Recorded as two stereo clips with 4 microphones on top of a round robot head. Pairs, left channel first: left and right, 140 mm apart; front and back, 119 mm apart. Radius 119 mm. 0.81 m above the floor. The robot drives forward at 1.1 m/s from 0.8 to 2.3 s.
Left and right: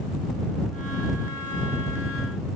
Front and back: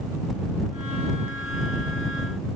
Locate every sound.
Only background noise.